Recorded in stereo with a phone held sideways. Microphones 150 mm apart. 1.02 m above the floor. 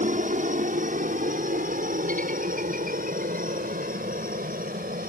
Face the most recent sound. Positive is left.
turn(degrees=-70)  # may be behind; listen again after turning